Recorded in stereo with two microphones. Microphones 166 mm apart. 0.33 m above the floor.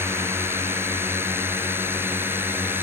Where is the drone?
15° right (ahead or behind).